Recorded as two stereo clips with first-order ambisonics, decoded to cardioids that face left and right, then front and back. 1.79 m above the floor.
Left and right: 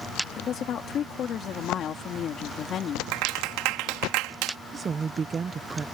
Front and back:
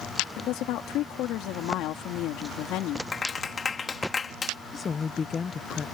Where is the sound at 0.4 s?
35° left.